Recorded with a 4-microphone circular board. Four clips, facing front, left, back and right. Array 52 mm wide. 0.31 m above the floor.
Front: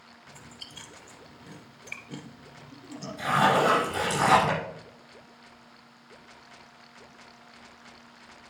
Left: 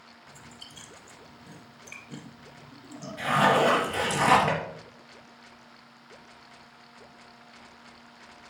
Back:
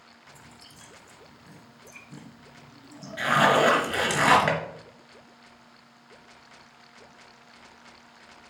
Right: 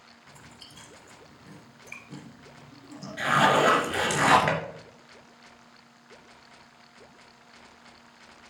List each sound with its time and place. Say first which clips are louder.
0.3 s chewing: left 1 dB, front 4 dB; 5° right, 2 m
3.2 s a zipper: right 1 dB, back 2 dB; 150° right, 3 m